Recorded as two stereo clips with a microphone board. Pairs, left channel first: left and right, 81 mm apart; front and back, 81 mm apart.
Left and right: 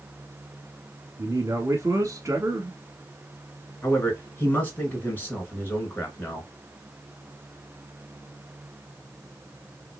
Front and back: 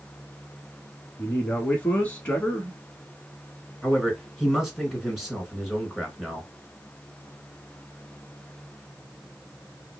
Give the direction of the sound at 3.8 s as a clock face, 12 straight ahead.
9 o'clock.